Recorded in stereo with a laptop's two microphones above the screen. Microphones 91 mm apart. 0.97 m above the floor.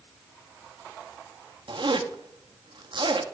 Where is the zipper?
65° right (ahead or behind), 0.6 m.